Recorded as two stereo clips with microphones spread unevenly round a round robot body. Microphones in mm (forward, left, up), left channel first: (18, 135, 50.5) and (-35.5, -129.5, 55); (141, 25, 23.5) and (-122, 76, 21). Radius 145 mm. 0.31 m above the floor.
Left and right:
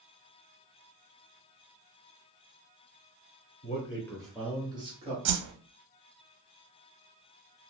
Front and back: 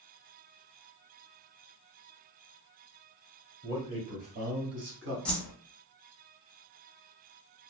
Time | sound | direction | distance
3.6 | a man speaking | 95° left | 1.3 m
5.2 | a whoosh | 95° right | 0.6 m